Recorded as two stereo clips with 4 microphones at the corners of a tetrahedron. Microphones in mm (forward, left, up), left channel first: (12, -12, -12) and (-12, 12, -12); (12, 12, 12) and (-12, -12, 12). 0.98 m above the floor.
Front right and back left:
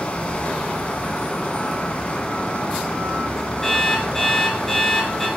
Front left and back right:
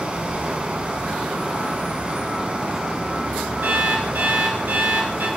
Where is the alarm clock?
125° right, 4.5 m.